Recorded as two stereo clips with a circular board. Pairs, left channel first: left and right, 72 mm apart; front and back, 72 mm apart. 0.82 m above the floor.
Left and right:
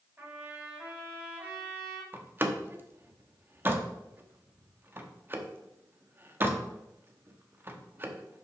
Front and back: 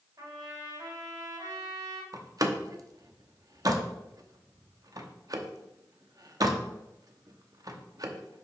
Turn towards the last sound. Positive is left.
turn(degrees=-150)